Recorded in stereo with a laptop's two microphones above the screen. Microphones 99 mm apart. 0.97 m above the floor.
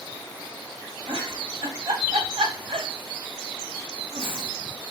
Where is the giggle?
65° right (ahead or behind), 0.8 m.